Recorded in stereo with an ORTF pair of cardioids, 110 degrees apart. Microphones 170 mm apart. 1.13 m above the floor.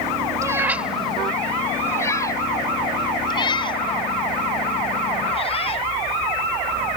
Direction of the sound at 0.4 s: 20° right.